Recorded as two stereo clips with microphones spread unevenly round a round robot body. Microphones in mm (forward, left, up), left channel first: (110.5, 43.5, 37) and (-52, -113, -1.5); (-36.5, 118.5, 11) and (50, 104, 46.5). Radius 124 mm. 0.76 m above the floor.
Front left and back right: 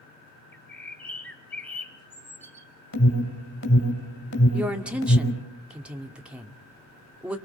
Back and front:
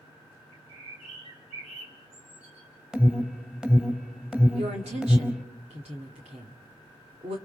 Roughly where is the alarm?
Left.